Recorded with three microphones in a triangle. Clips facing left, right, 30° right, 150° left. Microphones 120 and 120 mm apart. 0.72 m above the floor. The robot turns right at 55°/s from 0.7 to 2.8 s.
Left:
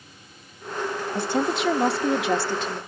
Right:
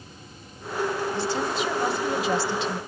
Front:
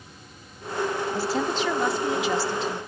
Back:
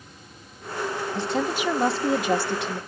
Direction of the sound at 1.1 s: 50° left.